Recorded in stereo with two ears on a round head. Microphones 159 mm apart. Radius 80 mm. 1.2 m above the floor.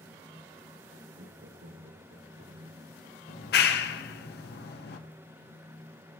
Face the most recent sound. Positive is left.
turn(degrees=65)  # may be behind; listen again after turning